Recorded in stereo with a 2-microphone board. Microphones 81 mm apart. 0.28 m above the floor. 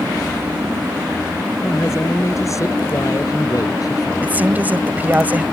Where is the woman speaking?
20° right (ahead or behind).